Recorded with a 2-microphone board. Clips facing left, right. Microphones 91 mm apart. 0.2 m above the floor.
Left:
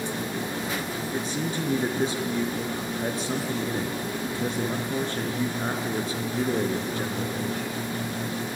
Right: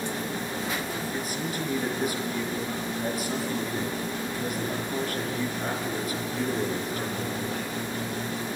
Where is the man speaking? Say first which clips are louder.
Left 2 dB; 30° left (ahead or behind), 3.5 m.